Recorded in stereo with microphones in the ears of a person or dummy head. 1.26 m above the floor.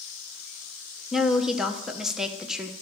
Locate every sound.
1.1 s a woman speaking: centre (ahead or behind), 0.8 m